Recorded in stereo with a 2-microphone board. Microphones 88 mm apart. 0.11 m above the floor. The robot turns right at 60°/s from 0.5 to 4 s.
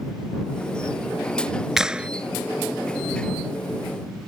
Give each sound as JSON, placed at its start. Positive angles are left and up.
{"t": 1.8, "sound": "a clap", "side_deg": -5}